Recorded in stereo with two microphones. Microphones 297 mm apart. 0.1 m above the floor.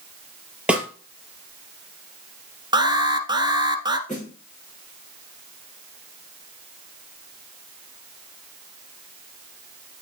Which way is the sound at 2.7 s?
15° right (ahead or behind).